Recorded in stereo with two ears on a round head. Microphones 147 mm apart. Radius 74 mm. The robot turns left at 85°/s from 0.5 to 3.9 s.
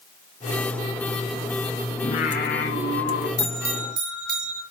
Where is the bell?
20° left (ahead or behind), 5.5 m; by 4.6 s 25° right (ahead or behind), 5.5 m.